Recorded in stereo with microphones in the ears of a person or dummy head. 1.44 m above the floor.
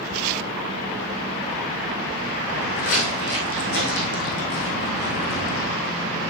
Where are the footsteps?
55° left (ahead or behind), 3.5 m; by 5.8 s 65° left (ahead or behind), 3.5 m.